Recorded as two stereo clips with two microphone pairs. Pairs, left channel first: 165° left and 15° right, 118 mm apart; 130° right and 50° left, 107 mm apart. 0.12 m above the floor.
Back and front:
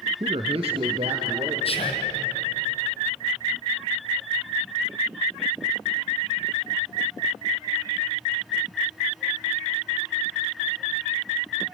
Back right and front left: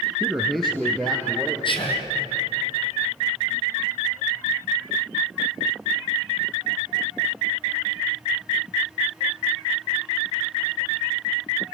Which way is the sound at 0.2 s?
30° right.